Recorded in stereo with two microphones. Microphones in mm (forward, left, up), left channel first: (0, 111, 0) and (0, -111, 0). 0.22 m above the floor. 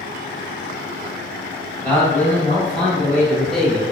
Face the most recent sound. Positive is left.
turn(degrees=0)  # may be behind; listen again after turning